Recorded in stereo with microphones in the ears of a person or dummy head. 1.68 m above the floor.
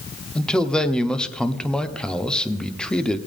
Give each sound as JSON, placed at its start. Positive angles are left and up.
{"t": 0.3, "sound": "a man speaking", "side_deg": 5, "distance_m": 0.9}